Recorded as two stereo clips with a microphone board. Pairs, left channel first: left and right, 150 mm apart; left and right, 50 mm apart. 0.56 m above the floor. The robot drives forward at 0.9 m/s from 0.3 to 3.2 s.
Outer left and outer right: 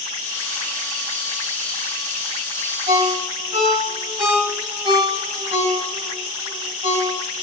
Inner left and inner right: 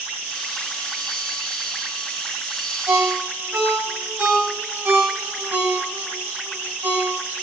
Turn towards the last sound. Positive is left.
turn(degrees=-40)  # may be behind; listen again after turning